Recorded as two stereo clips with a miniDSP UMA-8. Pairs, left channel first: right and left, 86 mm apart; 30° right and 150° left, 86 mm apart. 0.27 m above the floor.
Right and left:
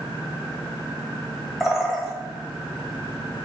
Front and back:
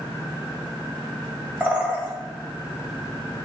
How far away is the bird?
About 1.1 m.